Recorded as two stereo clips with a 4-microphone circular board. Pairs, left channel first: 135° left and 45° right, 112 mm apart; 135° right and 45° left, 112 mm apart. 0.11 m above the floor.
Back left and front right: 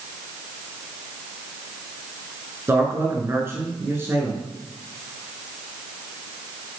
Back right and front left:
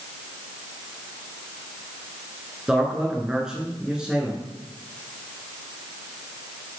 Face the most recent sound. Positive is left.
turn(degrees=-25)